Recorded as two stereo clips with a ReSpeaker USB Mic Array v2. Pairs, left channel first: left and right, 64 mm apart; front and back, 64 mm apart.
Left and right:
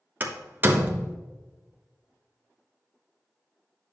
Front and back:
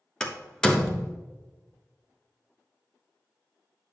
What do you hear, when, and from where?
0.2 s a door slam: 70° right, 1.1 m